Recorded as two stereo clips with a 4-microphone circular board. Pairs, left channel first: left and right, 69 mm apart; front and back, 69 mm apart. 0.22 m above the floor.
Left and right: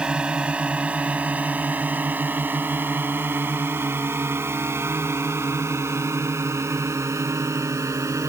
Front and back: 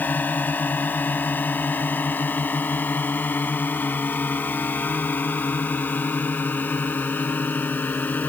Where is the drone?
30° right; by 8.3 s 60° right.